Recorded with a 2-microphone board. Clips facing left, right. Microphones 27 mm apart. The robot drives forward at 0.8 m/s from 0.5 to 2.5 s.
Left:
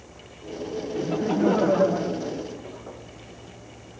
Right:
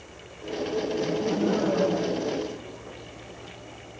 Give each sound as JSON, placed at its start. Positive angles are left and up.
{"t": 1.0, "sound": "laughter", "side_deg": 65, "distance_m": 0.8}